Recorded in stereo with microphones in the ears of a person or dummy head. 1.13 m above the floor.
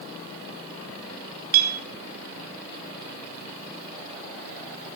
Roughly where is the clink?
Right.